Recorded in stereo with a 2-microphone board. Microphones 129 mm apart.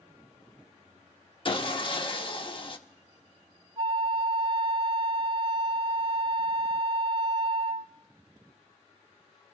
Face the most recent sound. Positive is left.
turn(degrees=-40)  # may be behind; listen again after turning